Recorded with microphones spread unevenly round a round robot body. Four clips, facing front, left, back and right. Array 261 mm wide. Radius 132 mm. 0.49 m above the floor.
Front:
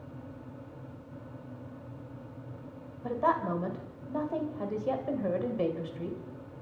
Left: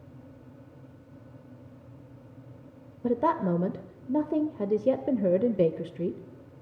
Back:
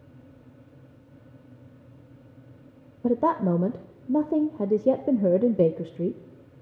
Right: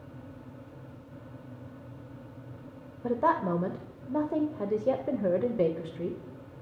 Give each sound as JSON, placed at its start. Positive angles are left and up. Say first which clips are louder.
{"t": 3.0, "sound": "a woman speaking", "louder": "left 1 dB, back 6 dB", "azimuth_deg": 170, "distance_m": 1.4}